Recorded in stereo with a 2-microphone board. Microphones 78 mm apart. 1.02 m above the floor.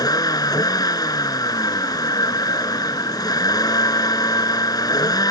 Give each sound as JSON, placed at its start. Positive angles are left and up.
{"t": 0.0, "sound": "a vehicle", "side_deg": 55}